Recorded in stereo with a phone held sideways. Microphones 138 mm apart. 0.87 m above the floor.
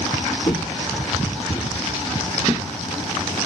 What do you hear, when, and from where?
0.5 s footsteps: 30° left (ahead or behind), 1.0 m; by 2.6 s 5° right (ahead or behind), 2.0 m